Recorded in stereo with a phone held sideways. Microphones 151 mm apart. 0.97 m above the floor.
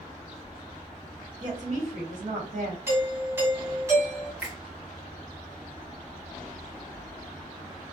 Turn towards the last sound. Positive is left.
turn(degrees=-10)  # may be behind; listen again after turning